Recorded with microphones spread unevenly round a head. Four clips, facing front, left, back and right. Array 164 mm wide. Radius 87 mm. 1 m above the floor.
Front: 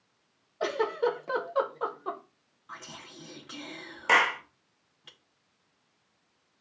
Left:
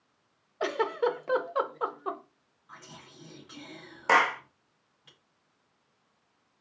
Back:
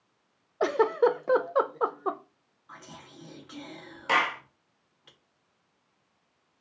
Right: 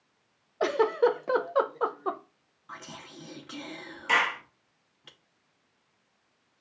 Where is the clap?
60° left, 0.7 m.